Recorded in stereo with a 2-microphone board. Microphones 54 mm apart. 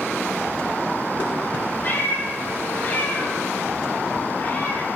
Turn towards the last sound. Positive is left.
turn(degrees=35)  # may be behind; listen again after turning